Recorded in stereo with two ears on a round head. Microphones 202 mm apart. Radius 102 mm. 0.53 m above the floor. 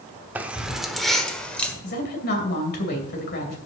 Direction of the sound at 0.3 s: 10° right (ahead or behind).